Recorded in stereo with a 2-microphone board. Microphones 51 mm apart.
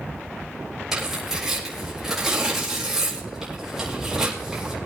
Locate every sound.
0.9 s tearing paper: 10° right (ahead or behind), 4.5 m